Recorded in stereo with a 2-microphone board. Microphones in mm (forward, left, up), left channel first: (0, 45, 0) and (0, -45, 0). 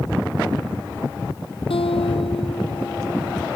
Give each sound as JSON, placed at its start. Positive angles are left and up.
{"t": 1.7, "sound": "a guitar", "side_deg": 85}